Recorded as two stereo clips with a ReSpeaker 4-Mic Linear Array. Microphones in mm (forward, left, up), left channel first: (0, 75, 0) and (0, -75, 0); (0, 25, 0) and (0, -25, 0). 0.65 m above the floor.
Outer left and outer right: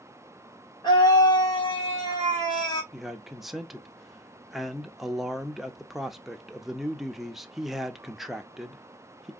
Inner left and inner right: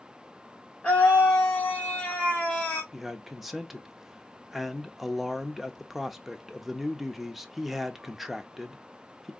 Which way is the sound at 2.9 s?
Centre (ahead or behind).